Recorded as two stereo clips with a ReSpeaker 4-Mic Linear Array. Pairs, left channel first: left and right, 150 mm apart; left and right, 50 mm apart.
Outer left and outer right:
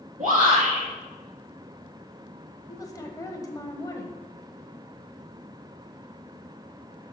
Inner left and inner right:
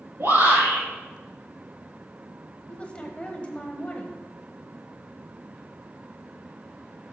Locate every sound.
0.2 s a shout: 50° right (ahead or behind), 4 m
2.7 s a woman speaking: 25° left (ahead or behind), 1.2 m